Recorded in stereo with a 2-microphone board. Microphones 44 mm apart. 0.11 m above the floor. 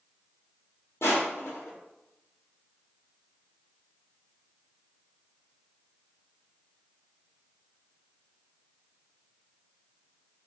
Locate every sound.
1.0 s crushing: 70° left (ahead or behind), 0.9 m